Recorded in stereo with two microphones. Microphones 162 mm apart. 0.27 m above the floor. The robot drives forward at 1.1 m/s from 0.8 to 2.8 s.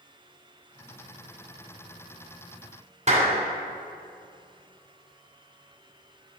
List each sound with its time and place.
3.1 s a clap: 50° right (ahead or behind), 1.9 m